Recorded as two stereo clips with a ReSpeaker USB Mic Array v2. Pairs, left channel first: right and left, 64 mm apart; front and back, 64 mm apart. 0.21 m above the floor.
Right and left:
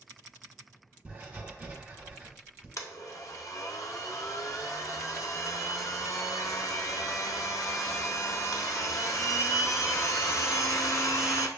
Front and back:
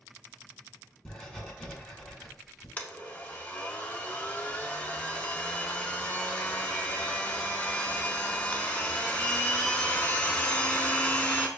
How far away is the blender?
About 0.6 m.